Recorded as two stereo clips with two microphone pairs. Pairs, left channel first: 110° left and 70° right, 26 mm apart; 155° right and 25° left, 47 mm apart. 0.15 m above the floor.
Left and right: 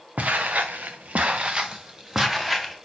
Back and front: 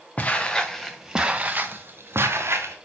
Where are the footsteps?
90° right, 0.9 m; by 2.8 s 5° left, 1.3 m.